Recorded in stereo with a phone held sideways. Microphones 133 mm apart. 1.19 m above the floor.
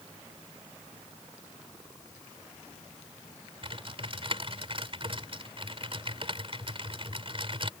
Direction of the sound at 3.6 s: 45° right (ahead or behind).